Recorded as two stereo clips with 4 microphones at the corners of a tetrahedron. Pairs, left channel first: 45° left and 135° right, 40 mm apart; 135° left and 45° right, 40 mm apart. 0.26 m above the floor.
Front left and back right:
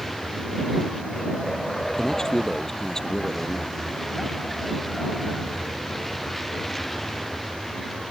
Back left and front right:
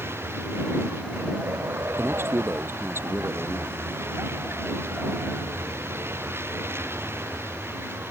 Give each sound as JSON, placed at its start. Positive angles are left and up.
{"t": 0.0, "sound": "a vehicle", "azimuth_deg": -40}
{"t": 2.0, "sound": "a man speaking", "azimuth_deg": -35}